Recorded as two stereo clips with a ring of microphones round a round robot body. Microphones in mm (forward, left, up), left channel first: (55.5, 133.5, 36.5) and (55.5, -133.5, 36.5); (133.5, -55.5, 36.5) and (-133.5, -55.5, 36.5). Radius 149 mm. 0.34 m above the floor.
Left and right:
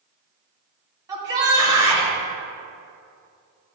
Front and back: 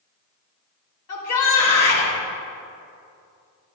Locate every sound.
1.1 s a shout: 15° right, 2.5 m